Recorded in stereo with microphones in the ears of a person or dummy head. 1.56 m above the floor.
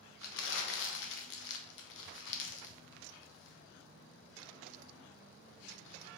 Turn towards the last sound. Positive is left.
turn(degrees=65)  # may be behind; listen again after turning